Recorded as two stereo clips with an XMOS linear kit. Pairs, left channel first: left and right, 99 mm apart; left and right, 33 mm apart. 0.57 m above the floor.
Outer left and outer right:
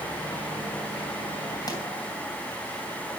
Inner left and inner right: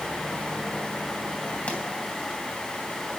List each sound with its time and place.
1.7 s a pop: 45° left (ahead or behind), 3 m